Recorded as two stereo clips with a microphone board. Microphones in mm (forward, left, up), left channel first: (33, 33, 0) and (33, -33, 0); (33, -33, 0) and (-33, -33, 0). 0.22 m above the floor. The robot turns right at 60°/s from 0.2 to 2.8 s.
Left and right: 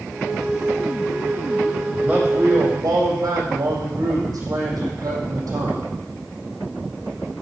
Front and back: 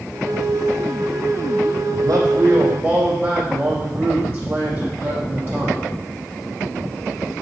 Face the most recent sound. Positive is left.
turn(degrees=-120)